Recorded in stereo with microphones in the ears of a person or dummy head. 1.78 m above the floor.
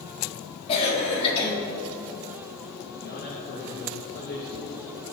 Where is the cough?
35° left (ahead or behind), 4.5 m.